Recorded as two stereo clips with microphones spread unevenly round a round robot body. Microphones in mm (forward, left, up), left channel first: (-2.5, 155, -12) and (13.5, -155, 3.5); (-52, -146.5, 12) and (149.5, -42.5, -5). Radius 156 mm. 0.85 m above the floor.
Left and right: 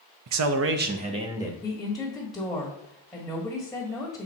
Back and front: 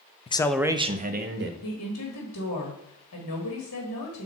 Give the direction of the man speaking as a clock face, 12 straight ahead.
3 o'clock.